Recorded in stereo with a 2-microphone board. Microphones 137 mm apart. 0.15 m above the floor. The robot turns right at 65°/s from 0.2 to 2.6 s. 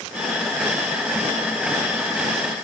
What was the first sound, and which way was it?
Only background noise.